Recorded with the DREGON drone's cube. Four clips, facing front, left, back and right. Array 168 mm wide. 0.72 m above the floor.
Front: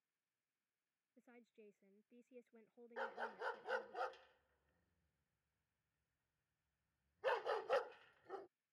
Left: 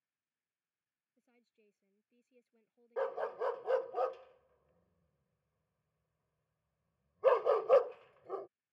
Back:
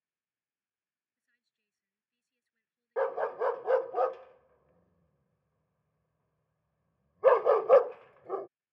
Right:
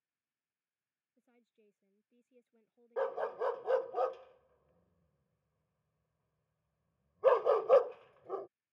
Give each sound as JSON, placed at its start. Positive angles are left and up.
{"t": 1.2, "sound": "a woman speaking", "azimuth_deg": -10}
{"t": 3.0, "sound": "a dog barking", "azimuth_deg": -175}